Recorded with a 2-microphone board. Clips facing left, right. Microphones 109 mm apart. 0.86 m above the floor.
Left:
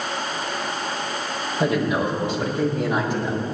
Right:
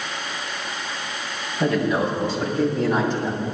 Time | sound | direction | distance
1.6 | a man speaking | 20° left (ahead or behind) | 4.5 m